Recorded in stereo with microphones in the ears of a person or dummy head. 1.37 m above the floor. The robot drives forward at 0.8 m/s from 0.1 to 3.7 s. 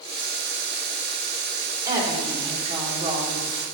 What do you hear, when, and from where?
1.9 s a woman speaking: 20° right (ahead or behind), 3.5 m; by 3.6 s 35° right (ahead or behind), 2.5 m